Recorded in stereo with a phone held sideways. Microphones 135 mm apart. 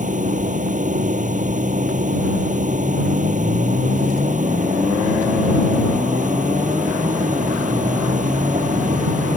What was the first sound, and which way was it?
A machine running, 70° right (ahead or behind).